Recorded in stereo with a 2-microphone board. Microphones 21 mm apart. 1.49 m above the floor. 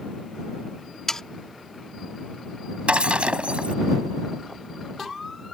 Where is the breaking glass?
75° right (ahead or behind).